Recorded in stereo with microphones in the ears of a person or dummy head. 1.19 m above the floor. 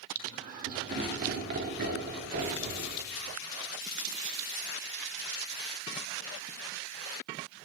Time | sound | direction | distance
0.1 | laughter | 45° right (ahead or behind) | 2 m